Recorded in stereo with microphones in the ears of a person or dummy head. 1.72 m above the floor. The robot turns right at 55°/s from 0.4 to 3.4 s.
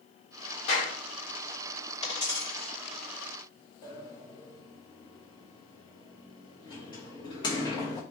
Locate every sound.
0.7 s a clap: 30° left (ahead or behind), 1.7 m; by 1.0 s 40° left (ahead or behind), 1.7 m
2.0 s a dropped coin: 45° left (ahead or behind), 1.9 m; by 2.7 s 10° left (ahead or behind), 1.9 m
3.8 s a sliding door: 25° left (ahead or behind), 0.8 m